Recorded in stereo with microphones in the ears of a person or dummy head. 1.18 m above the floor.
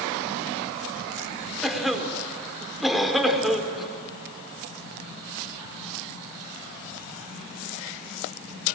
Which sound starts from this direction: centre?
A cough, at 1.6 s.